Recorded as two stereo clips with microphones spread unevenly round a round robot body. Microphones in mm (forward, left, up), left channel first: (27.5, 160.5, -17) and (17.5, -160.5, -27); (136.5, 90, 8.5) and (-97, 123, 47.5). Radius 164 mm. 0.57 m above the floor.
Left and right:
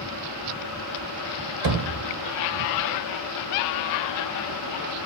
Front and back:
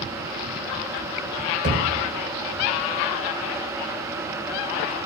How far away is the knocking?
About 1.9 m.